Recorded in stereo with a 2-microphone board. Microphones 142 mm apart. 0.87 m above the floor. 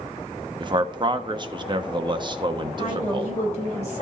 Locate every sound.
0.6 s a man speaking: 35° right (ahead or behind), 0.9 m
2.8 s a woman speaking: 50° left (ahead or behind), 4 m